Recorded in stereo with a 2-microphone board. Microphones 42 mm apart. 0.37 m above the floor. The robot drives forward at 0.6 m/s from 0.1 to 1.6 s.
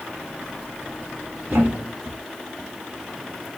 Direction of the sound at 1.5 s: 25° right (ahead or behind).